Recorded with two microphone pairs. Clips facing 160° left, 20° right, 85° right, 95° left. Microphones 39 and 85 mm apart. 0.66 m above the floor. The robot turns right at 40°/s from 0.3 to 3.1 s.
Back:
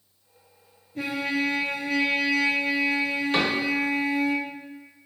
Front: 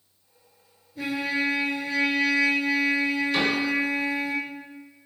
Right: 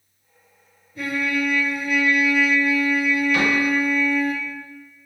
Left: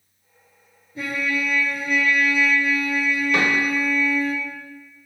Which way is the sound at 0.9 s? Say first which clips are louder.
Even, right 2 dB; 160° left.